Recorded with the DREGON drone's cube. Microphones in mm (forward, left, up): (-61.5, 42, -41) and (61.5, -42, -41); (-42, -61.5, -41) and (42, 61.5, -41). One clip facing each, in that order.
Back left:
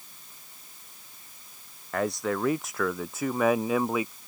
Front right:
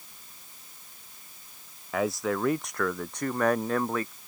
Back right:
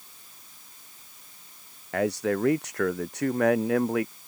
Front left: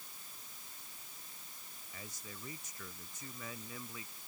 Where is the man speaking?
120° right; by 4.1 s 135° right.